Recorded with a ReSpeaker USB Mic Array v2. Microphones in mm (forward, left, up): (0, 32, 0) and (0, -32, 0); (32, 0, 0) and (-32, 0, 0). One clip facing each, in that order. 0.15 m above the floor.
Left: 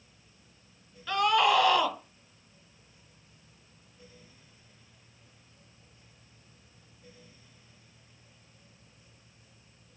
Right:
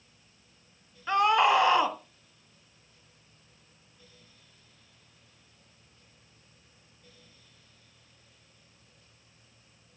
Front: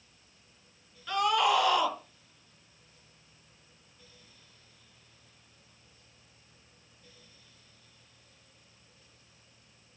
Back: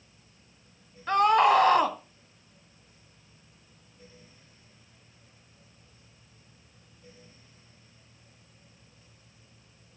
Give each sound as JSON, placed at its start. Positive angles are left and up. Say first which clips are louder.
{"t": 1.1, "sound": "a scream", "louder": "right 2 dB, back 6 dB", "azimuth_deg": -145, "distance_m": 1.9}